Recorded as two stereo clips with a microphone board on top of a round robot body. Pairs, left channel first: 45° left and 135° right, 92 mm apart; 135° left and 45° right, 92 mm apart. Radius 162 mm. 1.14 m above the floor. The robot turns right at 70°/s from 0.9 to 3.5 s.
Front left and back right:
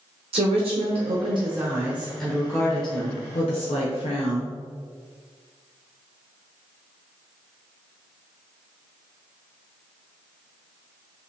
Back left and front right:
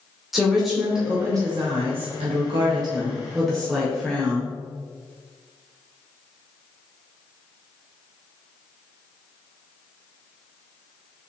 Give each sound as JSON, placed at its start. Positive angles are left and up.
{"t": 0.3, "sound": "a woman speaking", "azimuth_deg": -130, "distance_m": 0.7}